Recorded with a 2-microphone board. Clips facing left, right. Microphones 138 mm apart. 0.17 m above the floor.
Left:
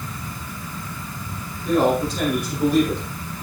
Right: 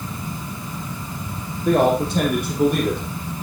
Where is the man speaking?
65° right (ahead or behind), 8.5 m; by 3.0 s 60° right (ahead or behind), 8 m.